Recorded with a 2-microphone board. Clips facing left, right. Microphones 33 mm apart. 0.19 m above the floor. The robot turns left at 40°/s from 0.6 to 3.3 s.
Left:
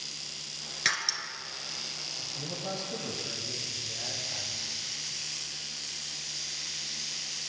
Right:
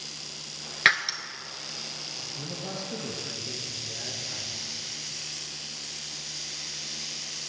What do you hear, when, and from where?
0.8 s breaking glass: 40° right (ahead or behind), 1.1 m; by 1.2 s 30° right (ahead or behind), 1.1 m
2.2 s a man speaking: 10° left, 3 m; by 4.7 s 35° right, 3 m